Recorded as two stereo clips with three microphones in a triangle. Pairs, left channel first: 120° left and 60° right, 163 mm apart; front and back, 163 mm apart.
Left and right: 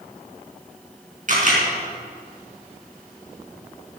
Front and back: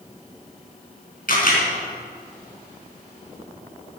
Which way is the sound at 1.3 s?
25° right.